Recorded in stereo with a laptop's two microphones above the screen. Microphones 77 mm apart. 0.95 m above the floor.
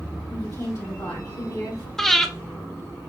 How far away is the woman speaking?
About 2.5 m.